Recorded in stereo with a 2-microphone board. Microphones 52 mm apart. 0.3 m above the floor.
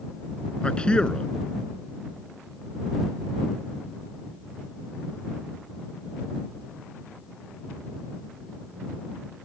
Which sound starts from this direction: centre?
A man speaking, at 0.6 s.